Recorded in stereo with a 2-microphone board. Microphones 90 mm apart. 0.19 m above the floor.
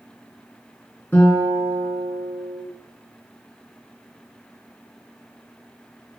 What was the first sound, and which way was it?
A guitar, 25° left (ahead or behind).